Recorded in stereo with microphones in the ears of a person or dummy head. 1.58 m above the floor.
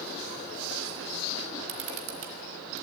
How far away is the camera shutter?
About 3 m.